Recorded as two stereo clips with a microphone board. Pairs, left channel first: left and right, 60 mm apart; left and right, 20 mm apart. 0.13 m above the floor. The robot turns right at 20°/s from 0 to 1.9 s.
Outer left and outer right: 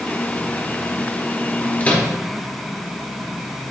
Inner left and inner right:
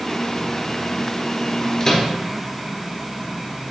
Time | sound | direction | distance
1.8 | a microwave | 25° left (ahead or behind) | 1.4 m